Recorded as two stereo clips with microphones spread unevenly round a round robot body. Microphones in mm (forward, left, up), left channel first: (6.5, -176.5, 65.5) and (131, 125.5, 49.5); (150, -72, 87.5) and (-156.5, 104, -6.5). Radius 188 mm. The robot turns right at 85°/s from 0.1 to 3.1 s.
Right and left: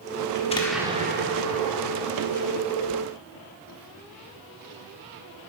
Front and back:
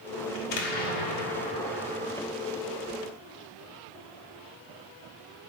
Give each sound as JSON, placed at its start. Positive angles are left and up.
{"t": 0.3, "sound": "an explosion", "azimuth_deg": -55, "distance_m": 1.6}